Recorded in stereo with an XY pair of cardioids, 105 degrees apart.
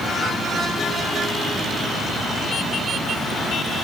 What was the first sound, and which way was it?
Only background noise.